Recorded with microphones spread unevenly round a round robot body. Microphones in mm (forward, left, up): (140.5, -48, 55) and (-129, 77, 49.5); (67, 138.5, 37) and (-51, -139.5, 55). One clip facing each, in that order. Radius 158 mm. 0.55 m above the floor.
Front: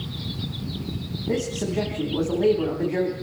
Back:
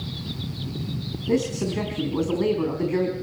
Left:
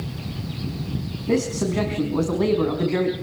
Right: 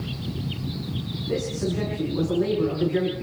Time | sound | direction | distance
1.3 | a man speaking | 85° left | 4.5 m